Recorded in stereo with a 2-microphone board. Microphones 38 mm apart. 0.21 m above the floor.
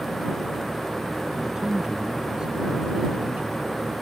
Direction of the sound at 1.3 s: 10° right (ahead or behind).